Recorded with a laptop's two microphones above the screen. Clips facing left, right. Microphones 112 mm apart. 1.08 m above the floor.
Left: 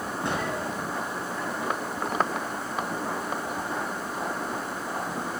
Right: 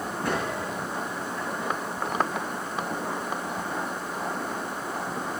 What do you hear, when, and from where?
0.2 s a gunshot: 25° left (ahead or behind), 6 m